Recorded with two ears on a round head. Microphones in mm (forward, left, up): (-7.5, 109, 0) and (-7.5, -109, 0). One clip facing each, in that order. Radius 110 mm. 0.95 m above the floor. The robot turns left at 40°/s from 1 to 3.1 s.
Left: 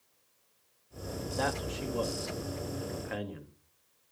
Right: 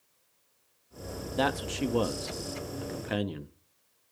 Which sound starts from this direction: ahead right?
A man speaking, at 1.4 s.